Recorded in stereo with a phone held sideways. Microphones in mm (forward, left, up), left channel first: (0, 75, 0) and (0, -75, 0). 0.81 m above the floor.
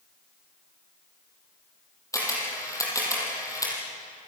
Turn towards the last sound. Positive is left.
turn(degrees=20)  # may be behind; listen again after turning